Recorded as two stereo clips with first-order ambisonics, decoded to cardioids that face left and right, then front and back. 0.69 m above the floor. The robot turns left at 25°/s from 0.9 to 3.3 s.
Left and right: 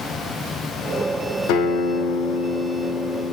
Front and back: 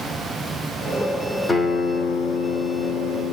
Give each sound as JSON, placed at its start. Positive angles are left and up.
{"t": 1.5, "sound": "a guitar", "azimuth_deg": 75, "distance_m": 0.7}